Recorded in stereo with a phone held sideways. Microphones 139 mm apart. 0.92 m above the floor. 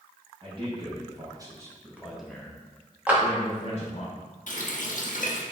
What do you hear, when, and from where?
0.4 s a man speaking: 40° right (ahead or behind), 1.9 m; by 4.1 s 55° left (ahead or behind), 1.4 m
3.1 s a clap: 10° right (ahead or behind), 1.1 m
4.5 s a running tap: 70° left (ahead or behind), 0.7 m